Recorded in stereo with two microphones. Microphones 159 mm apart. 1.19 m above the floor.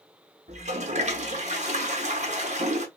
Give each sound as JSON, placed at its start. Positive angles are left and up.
{"t": 0.5, "sound": "a toilet flushing", "side_deg": -45, "distance_m": 0.9}